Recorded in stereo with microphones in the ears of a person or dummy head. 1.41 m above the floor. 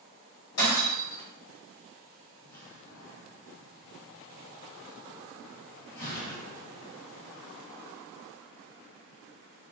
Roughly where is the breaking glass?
Left.